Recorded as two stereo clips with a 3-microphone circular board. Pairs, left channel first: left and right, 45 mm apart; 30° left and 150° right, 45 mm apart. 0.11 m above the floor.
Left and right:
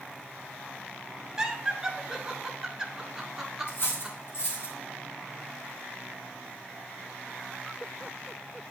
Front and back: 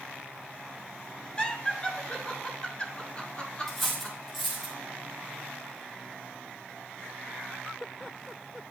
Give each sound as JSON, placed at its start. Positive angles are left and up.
{"t": 1.4, "sound": "laughter", "azimuth_deg": -20, "distance_m": 1.3}
{"t": 3.7, "sound": "cutlery clinking", "azimuth_deg": 120, "distance_m": 3.0}